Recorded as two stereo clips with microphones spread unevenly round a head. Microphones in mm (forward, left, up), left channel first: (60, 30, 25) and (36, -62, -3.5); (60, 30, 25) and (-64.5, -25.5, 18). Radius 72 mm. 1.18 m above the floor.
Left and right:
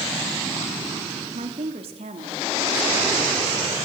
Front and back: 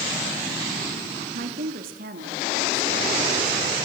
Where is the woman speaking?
135° right, 2.5 m.